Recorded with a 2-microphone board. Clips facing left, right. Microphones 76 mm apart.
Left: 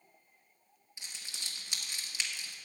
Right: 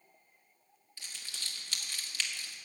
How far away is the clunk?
No clunk in this recording.